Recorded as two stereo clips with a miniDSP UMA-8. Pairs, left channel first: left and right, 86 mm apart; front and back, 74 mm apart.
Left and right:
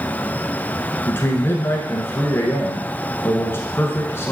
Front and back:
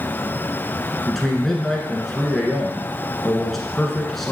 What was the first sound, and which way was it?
A man speaking, 85° left.